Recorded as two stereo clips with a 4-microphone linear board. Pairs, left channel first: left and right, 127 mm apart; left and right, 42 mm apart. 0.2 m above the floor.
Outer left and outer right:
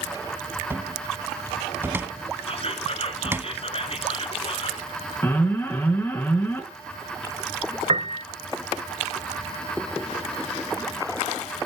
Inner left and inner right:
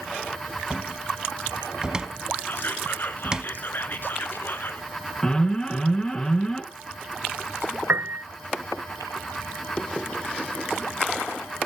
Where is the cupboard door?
20° right (ahead or behind), 0.8 m.